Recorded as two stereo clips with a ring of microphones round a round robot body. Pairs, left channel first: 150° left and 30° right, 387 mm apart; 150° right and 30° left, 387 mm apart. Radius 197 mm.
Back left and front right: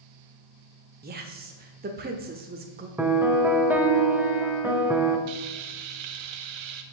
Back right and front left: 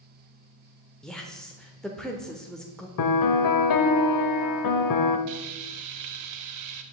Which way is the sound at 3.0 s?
115° right.